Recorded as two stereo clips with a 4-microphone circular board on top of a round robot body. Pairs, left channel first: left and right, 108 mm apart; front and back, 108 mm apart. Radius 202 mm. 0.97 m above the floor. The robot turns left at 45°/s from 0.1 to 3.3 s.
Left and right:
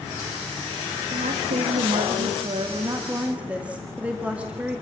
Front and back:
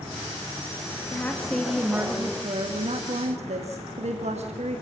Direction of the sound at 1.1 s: 70° right.